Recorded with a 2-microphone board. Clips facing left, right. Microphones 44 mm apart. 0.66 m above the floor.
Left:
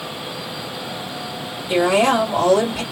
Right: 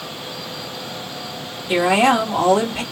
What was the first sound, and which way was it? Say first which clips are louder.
A woman speaking: right 1 dB; 40° right (ahead or behind).